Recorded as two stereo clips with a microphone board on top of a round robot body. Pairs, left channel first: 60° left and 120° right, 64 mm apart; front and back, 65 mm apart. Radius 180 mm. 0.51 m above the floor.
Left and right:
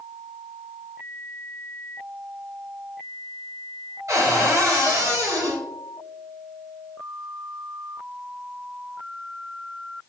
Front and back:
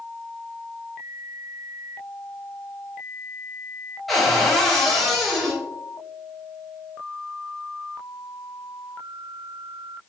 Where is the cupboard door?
90° right, 2.5 m.